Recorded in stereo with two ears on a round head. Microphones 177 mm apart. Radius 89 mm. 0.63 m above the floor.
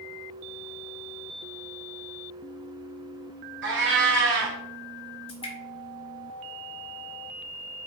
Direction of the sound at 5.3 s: 30° left (ahead or behind).